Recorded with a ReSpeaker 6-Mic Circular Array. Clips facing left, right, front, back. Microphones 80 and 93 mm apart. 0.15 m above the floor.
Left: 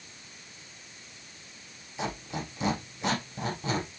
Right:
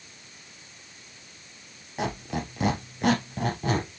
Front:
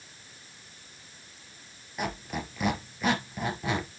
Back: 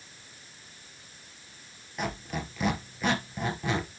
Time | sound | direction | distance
2.0 | a squeak | 90° right | 2.5 m